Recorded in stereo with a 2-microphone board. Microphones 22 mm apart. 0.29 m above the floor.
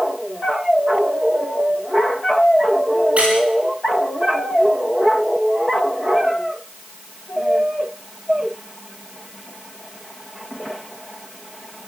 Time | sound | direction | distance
3.2 | a squeak | 55° right (ahead or behind) | 9 m